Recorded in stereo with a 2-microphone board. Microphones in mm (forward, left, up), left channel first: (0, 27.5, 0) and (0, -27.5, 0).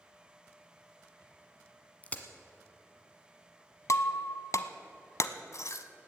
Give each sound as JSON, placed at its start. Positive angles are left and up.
{"t": 2.0, "sound": "a crack", "side_deg": 25, "distance_m": 1.2}
{"t": 3.9, "sound": "breaking glass", "side_deg": 65, "distance_m": 0.7}